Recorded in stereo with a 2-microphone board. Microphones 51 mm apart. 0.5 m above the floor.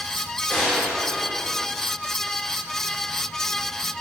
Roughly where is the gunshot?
Centre.